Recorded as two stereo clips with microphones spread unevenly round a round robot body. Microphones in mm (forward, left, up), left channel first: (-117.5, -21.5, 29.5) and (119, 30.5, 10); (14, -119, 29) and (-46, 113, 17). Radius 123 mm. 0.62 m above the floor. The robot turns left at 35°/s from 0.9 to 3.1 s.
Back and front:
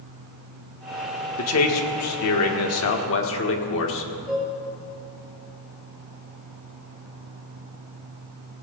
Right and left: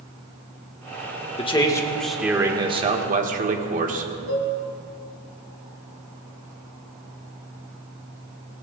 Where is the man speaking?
140° right, 1.3 m; by 4.1 s 160° left, 1.3 m.